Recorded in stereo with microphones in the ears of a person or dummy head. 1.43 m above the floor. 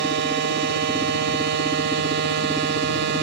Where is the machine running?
65° right (ahead or behind).